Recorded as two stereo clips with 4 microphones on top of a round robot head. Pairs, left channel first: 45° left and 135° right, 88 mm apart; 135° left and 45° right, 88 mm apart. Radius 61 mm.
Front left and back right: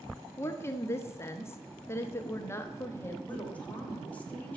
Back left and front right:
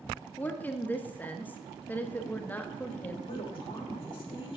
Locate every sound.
0.4 s a woman speaking: 80° left, 1.2 m
3.3 s a woman speaking: 120° left, 2.5 m